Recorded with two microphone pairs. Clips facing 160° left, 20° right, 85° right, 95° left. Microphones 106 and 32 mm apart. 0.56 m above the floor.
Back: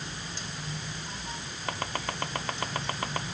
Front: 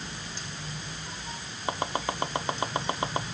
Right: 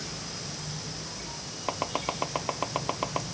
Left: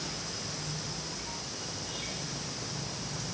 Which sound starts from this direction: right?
Chopping, at 1.7 s.